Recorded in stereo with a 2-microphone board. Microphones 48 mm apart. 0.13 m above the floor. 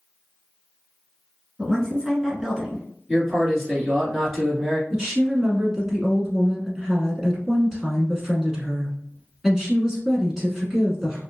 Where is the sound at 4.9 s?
10° right (ahead or behind), 1.1 m.